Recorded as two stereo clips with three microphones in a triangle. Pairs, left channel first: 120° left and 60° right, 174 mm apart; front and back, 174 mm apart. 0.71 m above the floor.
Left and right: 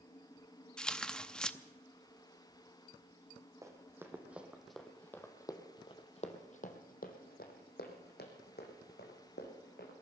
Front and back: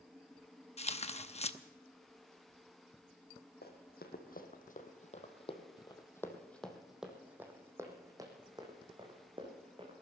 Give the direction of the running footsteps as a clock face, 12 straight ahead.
12 o'clock.